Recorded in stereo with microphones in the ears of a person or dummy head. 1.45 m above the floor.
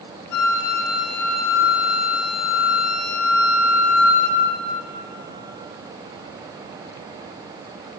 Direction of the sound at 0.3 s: 55° left (ahead or behind).